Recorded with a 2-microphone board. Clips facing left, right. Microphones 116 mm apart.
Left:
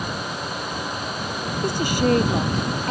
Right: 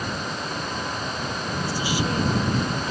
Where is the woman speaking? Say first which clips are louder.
Left 7 dB; 55° left (ahead or behind).